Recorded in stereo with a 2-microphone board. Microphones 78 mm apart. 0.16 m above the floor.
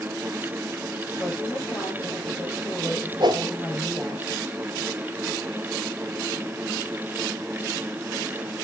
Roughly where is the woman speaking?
Left.